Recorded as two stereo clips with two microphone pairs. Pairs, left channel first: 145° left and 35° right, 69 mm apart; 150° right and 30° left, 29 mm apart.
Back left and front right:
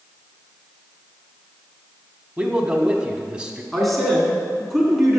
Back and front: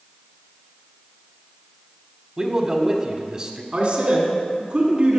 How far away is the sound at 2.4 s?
About 1.0 m.